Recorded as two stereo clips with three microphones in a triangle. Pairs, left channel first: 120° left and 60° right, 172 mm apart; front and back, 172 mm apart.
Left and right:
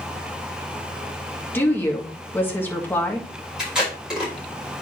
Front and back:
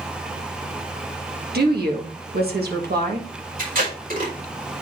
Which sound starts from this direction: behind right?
Tape being pulled, at 3.6 s.